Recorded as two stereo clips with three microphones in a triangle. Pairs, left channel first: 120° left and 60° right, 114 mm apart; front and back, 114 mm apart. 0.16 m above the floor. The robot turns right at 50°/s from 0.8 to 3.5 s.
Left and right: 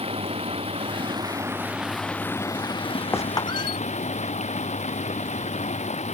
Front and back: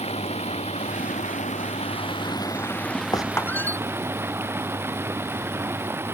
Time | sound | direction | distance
0.0 | running water | 25° right | ?
3.1 | a squeak | 55° left | ?